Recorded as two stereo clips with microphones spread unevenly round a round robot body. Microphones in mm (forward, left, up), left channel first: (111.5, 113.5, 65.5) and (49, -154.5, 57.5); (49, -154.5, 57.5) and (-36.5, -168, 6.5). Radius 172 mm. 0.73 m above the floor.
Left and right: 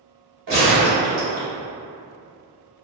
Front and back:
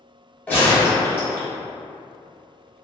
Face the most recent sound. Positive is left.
turn(degrees=-60)